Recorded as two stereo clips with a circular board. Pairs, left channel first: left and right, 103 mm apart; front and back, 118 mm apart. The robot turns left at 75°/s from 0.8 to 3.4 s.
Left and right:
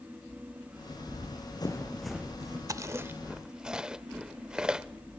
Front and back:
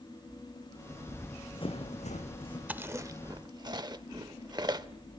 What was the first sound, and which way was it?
Running footsteps, 90° left.